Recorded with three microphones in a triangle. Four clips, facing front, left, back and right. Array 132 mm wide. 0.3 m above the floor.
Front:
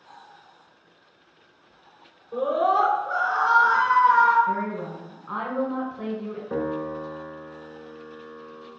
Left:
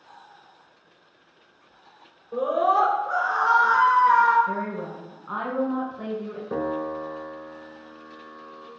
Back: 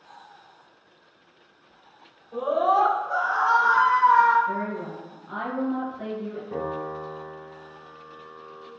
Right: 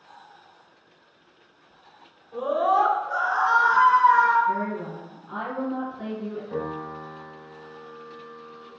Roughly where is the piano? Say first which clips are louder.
Left 8 dB, front 4 dB; ahead left.